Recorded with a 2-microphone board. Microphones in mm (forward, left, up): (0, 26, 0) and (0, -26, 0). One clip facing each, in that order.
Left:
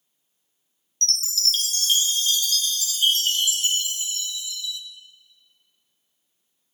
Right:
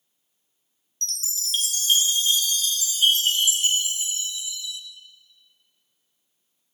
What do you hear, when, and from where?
1.0 s a chime: 20° right (ahead or behind), 1.0 m